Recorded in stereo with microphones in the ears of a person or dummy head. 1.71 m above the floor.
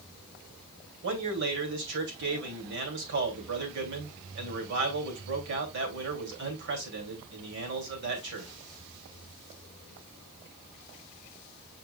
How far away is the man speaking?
About 2.5 m.